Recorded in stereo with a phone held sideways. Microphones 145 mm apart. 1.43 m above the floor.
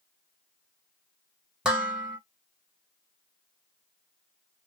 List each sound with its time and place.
1.6 s dishes clattering: 5° right (ahead or behind), 1.5 m